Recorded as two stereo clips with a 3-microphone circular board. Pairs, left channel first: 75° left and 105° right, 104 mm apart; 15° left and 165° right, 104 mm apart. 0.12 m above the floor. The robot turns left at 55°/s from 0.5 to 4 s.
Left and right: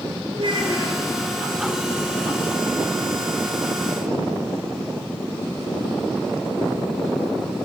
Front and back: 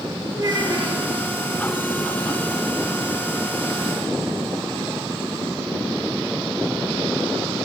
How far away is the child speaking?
About 1.8 m.